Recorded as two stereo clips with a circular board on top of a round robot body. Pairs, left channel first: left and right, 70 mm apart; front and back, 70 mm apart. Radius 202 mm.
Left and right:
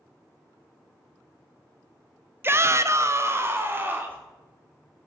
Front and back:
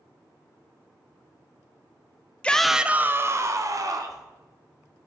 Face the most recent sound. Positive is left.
turn(degrees=-150)